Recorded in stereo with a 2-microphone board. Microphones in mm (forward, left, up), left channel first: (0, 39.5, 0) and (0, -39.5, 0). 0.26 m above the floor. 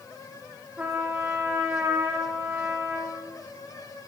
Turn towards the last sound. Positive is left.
turn(degrees=-20)  # may be behind; listen again after turning